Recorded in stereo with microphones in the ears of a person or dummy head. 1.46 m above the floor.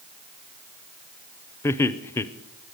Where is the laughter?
15° left (ahead or behind), 0.6 m.